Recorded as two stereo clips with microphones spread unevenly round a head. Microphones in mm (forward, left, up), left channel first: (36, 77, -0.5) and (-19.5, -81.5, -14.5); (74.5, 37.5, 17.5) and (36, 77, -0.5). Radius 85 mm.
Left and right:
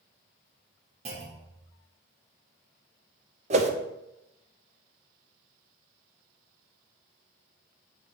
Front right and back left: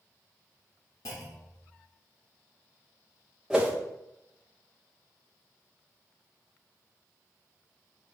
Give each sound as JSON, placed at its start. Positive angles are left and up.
{"t": 1.1, "sound": "a clunk", "azimuth_deg": -55, "distance_m": 1.5}
{"t": 3.5, "sound": "a whoosh", "azimuth_deg": -155, "distance_m": 0.7}